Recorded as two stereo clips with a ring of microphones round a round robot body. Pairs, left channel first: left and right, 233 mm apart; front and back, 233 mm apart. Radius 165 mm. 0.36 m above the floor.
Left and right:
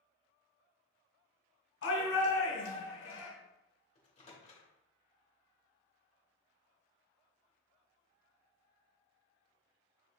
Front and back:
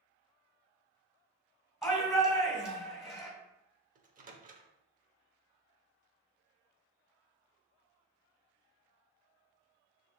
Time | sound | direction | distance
1.8 | a shout | 90° left | 1.9 m
4.0 | a microwave | 140° left | 0.7 m